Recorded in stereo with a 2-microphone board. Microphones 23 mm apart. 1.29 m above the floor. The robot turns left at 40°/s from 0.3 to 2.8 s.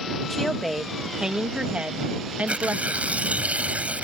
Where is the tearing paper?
55° right (ahead or behind); by 4.0 s 70° right (ahead or behind).